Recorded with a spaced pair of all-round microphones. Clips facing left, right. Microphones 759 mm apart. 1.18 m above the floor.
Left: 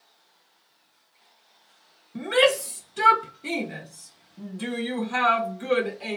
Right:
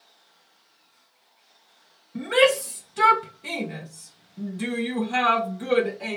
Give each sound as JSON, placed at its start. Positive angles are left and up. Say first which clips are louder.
{"t": 2.1, "sound": "a shout", "louder": "right 1 dB", "side_deg": -5, "distance_m": 1.7}